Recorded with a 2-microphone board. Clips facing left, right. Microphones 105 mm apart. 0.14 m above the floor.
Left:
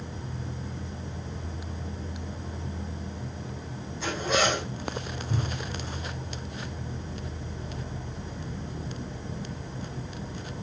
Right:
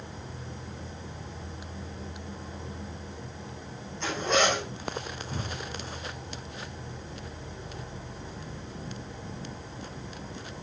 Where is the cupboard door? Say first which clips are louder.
Left 5 dB; 65° left (ahead or behind), 8 m.